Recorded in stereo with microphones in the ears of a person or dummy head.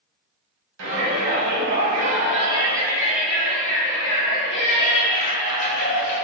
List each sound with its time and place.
0.8 s a shout: 65° right (ahead or behind), 1.4 m; by 6.2 s 55° left (ahead or behind), 2 m